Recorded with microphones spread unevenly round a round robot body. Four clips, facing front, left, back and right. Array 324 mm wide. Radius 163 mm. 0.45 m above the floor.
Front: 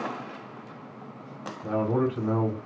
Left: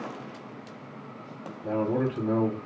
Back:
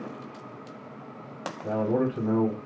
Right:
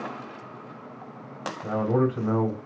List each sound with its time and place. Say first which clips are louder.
1.6 s a man speaking: right 3 dB, even; 60° right, 1.2 m